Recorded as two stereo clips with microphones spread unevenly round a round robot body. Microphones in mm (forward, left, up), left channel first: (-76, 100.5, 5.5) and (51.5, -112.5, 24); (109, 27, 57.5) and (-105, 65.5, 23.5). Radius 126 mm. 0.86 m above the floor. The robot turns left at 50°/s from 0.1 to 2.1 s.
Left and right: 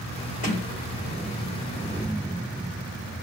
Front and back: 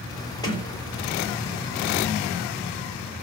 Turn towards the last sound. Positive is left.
turn(degrees=-20)